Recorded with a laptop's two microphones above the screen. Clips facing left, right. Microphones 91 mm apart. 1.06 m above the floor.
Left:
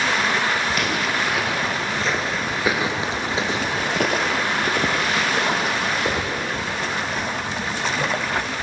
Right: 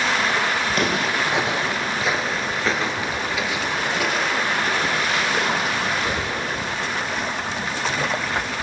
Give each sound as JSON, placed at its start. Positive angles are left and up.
{"t": 0.7, "sound": "footsteps", "side_deg": -40, "distance_m": 1.6}